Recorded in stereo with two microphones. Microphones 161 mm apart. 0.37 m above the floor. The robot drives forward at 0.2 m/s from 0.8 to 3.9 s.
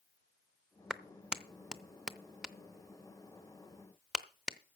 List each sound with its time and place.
0.9 s a clap: 5° right (ahead or behind), 0.6 m